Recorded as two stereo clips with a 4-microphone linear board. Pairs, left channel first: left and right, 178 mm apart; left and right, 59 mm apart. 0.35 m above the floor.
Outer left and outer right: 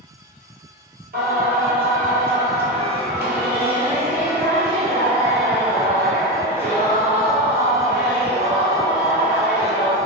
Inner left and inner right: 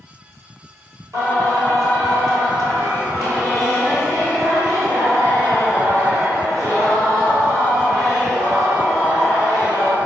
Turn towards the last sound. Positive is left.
turn(degrees=-60)  # may be behind; listen again after turning